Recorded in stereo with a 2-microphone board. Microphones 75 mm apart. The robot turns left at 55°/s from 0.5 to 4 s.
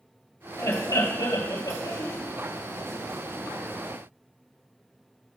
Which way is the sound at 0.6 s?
125° left.